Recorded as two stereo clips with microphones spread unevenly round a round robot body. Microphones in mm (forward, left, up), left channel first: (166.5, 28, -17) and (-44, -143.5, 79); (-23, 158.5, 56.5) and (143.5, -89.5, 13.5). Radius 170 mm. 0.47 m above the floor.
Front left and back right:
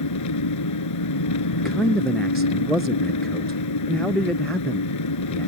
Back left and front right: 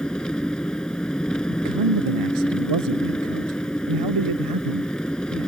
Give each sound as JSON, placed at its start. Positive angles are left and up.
{"t": 0.0, "sound": "an engine running", "azimuth_deg": 35}
{"t": 1.5, "sound": "a man speaking", "azimuth_deg": -50}